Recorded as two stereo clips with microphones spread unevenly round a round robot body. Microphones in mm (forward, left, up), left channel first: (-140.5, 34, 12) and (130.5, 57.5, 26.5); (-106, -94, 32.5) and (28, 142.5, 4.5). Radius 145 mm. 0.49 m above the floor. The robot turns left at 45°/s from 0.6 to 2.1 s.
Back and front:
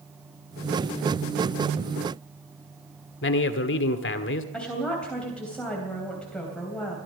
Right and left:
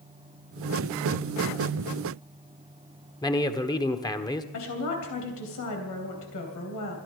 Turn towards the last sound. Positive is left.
turn(degrees=-90)